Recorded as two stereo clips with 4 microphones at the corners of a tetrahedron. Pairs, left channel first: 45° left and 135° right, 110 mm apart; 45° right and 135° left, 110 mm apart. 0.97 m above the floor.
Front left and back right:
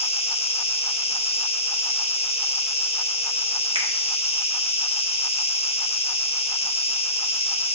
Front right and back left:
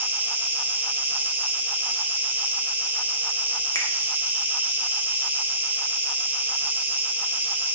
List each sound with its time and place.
0.0 s an insect: 60° left, 0.8 m
3.8 s a finger snap: 105° right, 1.5 m